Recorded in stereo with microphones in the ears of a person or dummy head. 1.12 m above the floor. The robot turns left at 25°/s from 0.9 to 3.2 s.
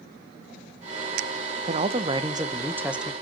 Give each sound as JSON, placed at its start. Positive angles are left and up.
{"t": 1.7, "sound": "a man speaking", "azimuth_deg": -140, "distance_m": 0.5}